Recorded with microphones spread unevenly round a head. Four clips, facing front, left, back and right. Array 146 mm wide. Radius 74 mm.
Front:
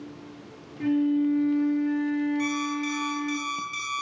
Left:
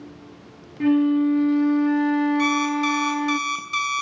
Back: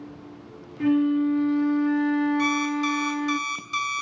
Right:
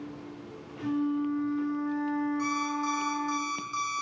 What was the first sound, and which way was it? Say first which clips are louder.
A flute: left 11 dB, back 2 dB; 105° left.